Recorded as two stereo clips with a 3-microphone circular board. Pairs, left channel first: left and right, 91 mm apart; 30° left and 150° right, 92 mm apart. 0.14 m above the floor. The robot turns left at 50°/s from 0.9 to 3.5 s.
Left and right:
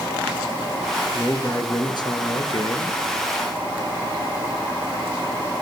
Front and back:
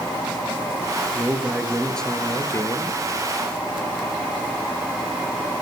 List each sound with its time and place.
1.1 s a man speaking: 155° left, 3 m; by 3.0 s 60° left, 3 m